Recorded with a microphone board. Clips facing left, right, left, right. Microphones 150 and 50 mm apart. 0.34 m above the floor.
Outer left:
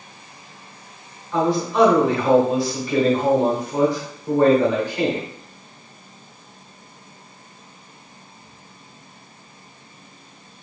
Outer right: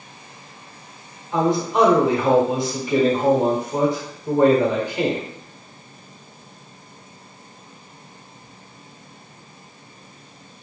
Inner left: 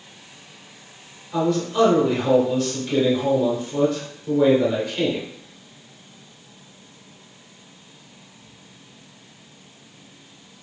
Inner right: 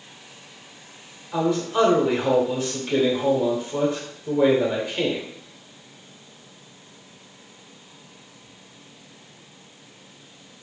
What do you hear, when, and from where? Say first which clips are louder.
1.3 s a man speaking: even, inner left 1 dB; 20° right (ahead or behind), 0.8 m